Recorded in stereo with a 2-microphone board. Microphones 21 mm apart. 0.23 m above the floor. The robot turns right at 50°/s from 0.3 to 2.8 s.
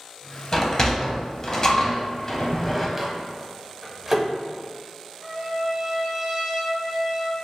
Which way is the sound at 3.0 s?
15° right (ahead or behind).